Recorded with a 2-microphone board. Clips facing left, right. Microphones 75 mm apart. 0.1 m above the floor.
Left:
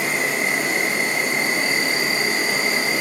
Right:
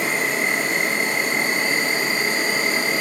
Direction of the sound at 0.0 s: 5° left (ahead or behind).